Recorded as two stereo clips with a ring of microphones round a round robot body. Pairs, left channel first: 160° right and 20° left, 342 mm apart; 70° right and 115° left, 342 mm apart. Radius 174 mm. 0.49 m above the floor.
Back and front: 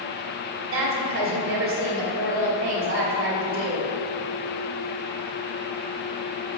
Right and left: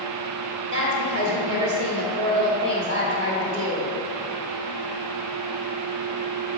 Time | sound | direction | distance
0.7 | a woman speaking | 65° left | 2 m